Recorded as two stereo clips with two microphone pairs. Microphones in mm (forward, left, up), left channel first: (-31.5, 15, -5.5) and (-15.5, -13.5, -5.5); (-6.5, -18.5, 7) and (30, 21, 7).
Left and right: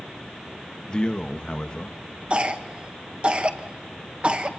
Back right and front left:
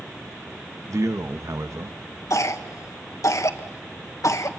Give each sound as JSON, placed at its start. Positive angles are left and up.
{"t": 0.9, "sound": "a man speaking", "azimuth_deg": 55, "distance_m": 1.3}
{"t": 2.3, "sound": "a cough", "azimuth_deg": -115, "distance_m": 2.0}